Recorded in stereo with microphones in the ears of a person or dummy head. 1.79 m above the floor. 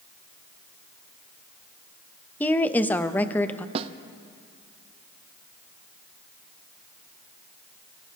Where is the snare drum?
35° right (ahead or behind), 0.6 m.